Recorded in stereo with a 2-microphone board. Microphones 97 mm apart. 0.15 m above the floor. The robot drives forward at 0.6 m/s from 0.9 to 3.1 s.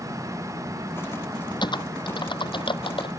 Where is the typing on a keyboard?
55° left (ahead or behind); by 3.1 s 65° left (ahead or behind).